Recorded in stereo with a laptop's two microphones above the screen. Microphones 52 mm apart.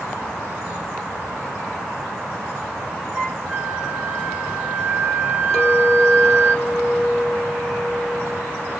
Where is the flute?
30° right (ahead or behind), 1.5 m.